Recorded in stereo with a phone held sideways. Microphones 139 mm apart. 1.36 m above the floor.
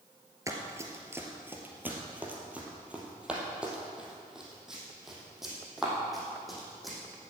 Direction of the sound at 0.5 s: 20° right (ahead or behind).